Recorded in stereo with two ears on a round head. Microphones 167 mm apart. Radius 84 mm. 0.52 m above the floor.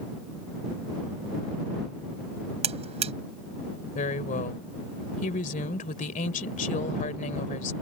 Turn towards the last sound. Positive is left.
turn(degrees=45)  # may be behind; listen again after turning